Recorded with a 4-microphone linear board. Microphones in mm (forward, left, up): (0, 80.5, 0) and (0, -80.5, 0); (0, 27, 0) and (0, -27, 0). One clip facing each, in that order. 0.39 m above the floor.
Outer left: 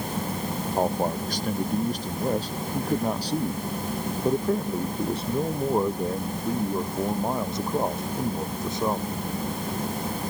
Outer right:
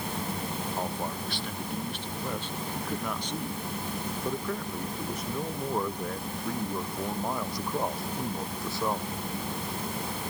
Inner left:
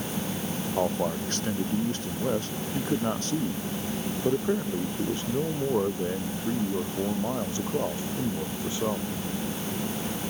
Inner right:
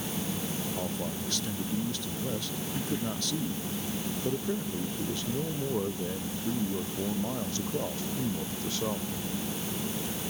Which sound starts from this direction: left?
A man speaking, at 0.8 s.